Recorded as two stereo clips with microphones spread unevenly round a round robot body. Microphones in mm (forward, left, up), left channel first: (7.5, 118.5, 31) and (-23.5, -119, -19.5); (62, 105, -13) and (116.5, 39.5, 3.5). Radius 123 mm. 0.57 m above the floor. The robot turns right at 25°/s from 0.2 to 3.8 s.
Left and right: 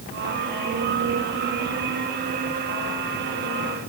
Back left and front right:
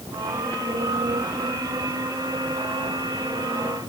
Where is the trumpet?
No trumpet in this recording.